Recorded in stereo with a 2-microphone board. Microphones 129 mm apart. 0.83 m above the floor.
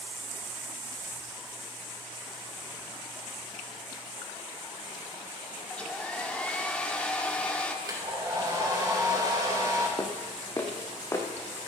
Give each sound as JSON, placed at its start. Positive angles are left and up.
{"t": 5.7, "sound": "a hair dryer", "side_deg": 10, "distance_m": 1.6}
{"t": 7.8, "sound": "a hair dryer", "side_deg": -25, "distance_m": 3.5}
{"t": 10.0, "sound": "footsteps", "side_deg": 25, "distance_m": 2.5}